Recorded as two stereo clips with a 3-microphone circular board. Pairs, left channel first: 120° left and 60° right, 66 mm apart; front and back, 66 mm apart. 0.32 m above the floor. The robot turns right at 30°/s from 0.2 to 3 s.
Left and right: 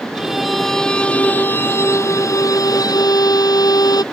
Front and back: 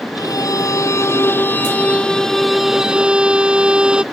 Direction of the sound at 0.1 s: 20° left.